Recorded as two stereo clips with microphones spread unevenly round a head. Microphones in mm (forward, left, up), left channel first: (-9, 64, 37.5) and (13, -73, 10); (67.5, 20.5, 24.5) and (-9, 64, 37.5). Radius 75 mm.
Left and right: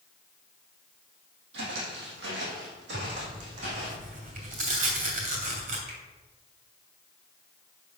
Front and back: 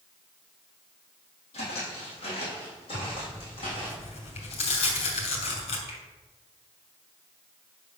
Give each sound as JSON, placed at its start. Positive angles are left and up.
{"t": 1.5, "sound": "footsteps", "azimuth_deg": -75, "distance_m": 3.5}
{"t": 2.9, "sound": "tearing paper", "azimuth_deg": -45, "distance_m": 3.0}
{"t": 5.9, "sound": "a finger snap", "azimuth_deg": -65, "distance_m": 3.5}